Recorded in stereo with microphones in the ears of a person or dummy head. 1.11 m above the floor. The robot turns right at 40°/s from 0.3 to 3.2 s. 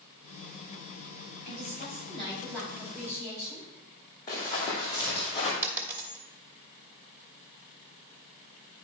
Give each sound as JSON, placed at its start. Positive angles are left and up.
{"t": 1.4, "sound": "a woman speaking", "azimuth_deg": 130, "distance_m": 4.0}
{"t": 4.3, "sound": "running footsteps", "side_deg": 20, "distance_m": 3.0}
{"t": 5.6, "sound": "a dropped coin", "side_deg": -15, "distance_m": 1.2}